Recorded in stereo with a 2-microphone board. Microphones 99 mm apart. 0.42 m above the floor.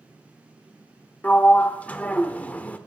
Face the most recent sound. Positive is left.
turn(degrees=15)  # may be behind; listen again after turning